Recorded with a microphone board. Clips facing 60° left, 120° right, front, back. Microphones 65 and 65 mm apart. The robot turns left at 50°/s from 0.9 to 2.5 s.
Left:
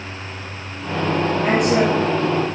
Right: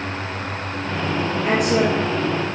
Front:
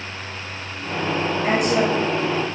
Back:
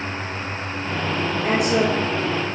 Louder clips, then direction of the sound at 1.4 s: Left 1 dB, even; 40° left.